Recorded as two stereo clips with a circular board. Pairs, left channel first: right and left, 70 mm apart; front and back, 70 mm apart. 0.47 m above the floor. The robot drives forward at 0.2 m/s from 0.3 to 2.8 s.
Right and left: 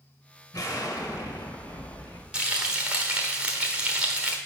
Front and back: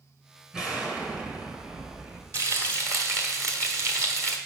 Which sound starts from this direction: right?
An explosion, at 0.5 s.